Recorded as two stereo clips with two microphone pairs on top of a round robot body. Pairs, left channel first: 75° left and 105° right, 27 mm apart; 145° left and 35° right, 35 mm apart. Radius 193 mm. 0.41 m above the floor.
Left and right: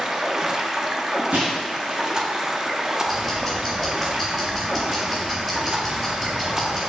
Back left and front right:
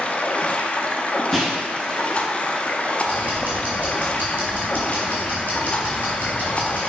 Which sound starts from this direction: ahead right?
Ticking, at 3.1 s.